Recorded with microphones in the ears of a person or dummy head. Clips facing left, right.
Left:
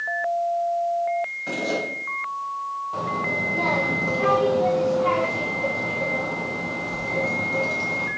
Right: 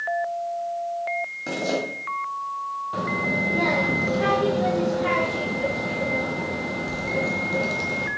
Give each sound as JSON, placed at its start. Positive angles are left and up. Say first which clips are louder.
{"t": 1.5, "sound": "a zipper", "louder": "right 3 dB", "side_deg": -60, "distance_m": 2.0}
{"t": 2.9, "sound": "a child speaking", "louder": "right 2 dB", "side_deg": -20, "distance_m": 0.6}